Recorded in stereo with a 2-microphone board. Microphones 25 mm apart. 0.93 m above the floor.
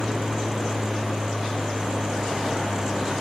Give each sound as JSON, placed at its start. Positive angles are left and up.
{"t": 0.0, "sound": "an aircraft", "side_deg": 55}